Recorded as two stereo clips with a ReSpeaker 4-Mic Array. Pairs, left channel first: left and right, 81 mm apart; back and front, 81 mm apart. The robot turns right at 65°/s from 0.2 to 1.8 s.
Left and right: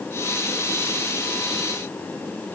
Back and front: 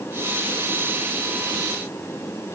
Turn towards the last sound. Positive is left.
No sound to turn to.